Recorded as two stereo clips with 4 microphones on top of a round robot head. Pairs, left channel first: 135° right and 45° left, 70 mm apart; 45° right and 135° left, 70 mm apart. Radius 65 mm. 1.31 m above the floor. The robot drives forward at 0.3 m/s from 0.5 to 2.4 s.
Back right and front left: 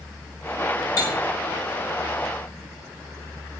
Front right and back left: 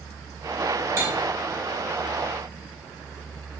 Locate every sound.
1.0 s cutlery clinking: 175° right, 0.7 m